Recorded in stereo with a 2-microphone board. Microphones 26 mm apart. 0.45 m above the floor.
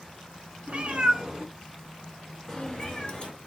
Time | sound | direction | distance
0.7 | a cat meowing | 55° right (ahead or behind) | 0.8 m